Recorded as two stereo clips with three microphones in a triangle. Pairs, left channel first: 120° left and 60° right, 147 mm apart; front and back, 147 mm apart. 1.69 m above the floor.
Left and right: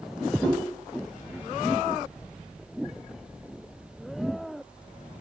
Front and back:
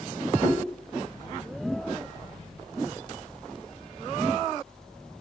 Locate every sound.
0.4 s a whoosh: 175° right, 1.4 m